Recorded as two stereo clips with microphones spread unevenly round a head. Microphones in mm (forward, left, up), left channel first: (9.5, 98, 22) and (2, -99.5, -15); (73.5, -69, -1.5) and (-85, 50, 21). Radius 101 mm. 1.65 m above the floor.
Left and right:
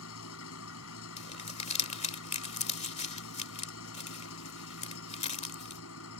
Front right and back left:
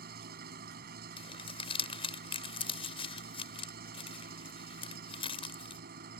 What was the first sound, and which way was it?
An engine running, 100° left.